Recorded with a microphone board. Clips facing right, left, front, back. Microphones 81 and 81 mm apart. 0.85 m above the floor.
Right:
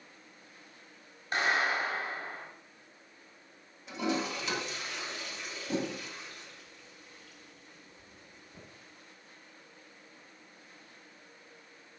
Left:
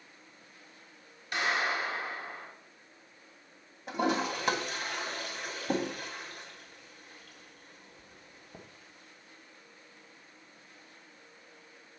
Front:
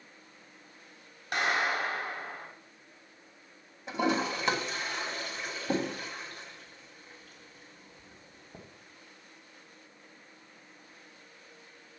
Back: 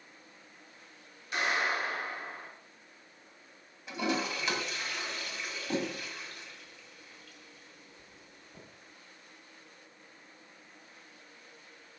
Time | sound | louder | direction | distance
1.3 | a clap | right 1 dB, front 2 dB | 35° right | 4.5 m
3.9 | a toilet flushing | left 3 dB, front 4 dB | 50° left | 2.5 m